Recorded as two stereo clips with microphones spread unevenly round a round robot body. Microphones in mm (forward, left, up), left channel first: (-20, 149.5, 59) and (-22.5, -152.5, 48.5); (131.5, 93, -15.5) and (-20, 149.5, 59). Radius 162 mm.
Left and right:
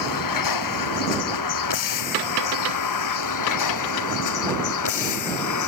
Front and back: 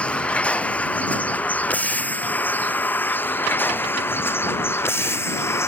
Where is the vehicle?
65° left; by 5.7 s 55° left.